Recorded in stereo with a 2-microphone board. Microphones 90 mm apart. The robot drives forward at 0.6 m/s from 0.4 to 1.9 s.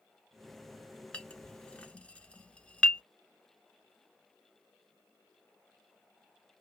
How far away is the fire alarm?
I don't hear a fire alarm.